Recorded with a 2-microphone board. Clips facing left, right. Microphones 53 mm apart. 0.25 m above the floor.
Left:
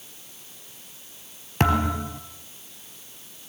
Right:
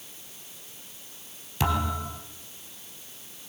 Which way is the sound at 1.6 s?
50° left (ahead or behind).